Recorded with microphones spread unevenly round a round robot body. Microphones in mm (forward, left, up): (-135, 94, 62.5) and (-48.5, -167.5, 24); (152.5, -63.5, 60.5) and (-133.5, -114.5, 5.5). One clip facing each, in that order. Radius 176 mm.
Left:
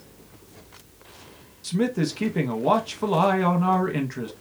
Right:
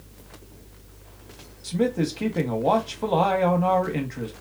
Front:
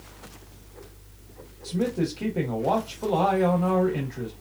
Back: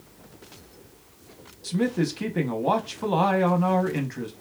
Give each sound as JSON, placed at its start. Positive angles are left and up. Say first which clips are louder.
{"t": 1.6, "sound": "a man speaking", "louder": "even, back 1 dB", "azimuth_deg": -175, "distance_m": 0.8}